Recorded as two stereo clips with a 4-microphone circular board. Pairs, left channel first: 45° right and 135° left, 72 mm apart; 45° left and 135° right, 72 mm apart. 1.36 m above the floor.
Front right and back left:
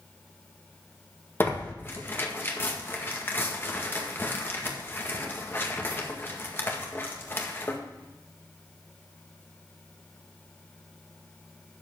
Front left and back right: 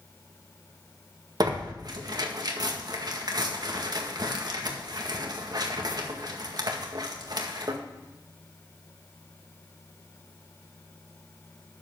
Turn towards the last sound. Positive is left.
turn(degrees=-105)